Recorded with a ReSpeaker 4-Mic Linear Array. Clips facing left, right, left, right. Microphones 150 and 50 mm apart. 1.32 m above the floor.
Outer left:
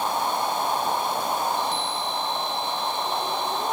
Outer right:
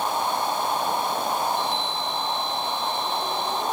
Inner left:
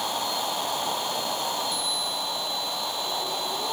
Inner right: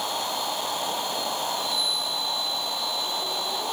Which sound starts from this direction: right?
A chime, at 1.5 s.